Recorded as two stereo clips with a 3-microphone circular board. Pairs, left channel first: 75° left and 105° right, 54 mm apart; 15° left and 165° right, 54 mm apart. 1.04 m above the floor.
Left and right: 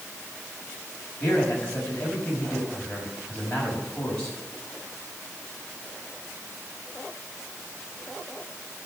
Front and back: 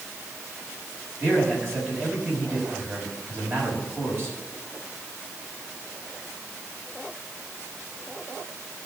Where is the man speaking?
145° left, 6 m.